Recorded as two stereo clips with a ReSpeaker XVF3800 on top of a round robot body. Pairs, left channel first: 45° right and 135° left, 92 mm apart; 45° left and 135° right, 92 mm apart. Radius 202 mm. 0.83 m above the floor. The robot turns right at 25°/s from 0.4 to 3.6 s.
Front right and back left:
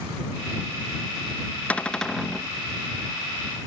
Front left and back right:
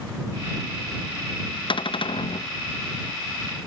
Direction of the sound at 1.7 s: 30° left.